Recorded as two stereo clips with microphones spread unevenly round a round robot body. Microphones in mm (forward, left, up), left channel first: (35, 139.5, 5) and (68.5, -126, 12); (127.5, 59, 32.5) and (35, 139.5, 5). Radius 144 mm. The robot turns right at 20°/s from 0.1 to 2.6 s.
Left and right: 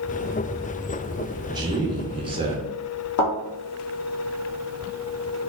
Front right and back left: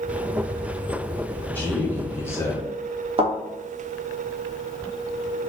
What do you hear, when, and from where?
1.5 s a man speaking: 130° right, 0.7 m; by 2.7 s 110° right, 0.7 m
3.2 s a thud: 100° left, 1.7 m